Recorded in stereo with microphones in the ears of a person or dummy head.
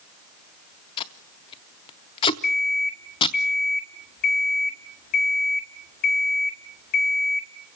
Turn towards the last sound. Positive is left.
turn(degrees=55)  # may be behind; listen again after turning